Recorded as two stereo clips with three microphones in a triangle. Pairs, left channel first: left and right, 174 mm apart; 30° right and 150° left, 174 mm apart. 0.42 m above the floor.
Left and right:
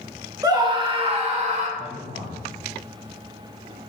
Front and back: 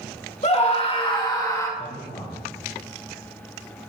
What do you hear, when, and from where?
0.4 s a scream: 35° right, 1.6 m; by 1.7 s 95° right, 1.6 m
1.8 s a man speaking: 85° right, 2 m